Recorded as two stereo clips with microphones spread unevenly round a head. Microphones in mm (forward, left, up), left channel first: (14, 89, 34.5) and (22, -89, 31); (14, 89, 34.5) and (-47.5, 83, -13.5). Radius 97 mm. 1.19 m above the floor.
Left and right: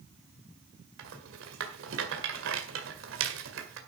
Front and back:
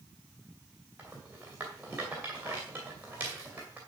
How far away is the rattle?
About 1.9 m.